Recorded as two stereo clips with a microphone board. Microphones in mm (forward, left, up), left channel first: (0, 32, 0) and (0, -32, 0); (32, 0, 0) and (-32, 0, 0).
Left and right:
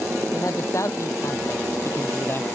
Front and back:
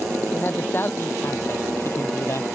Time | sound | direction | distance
0.3 | a man speaking | 60° left | ?